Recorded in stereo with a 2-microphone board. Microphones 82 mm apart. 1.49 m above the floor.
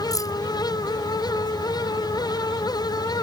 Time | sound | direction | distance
0.1 | keys jangling | 50° left (ahead or behind) | ?